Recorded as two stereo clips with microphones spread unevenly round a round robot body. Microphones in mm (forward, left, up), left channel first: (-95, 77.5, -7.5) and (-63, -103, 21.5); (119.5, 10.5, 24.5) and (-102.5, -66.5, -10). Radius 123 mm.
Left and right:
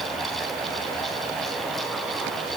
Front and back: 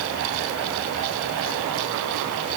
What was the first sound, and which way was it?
Only background noise.